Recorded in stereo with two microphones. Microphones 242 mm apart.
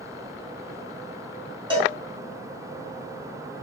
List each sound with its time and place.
1.7 s a cowbell: 20° right (ahead or behind), 2 m